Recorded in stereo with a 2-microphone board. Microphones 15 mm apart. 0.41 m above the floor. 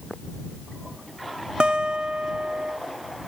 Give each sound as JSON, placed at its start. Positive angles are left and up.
{"t": 1.6, "sound": "a guitar", "side_deg": -80}